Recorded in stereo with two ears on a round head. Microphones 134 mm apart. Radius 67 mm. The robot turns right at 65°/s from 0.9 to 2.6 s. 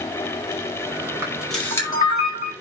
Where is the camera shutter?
15° right, 4.5 m; by 2.5 s 70° left, 4.5 m.